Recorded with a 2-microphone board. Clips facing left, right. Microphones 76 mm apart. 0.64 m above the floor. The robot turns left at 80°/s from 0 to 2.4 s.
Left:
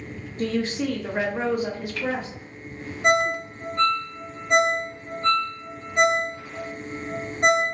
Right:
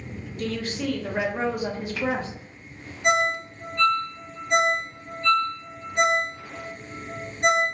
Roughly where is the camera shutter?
I don't hear a camera shutter.